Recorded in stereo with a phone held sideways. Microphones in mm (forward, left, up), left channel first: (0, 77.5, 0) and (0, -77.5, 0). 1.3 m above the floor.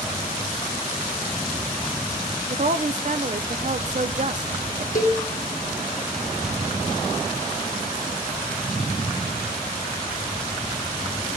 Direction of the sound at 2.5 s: 50° right (ahead or behind).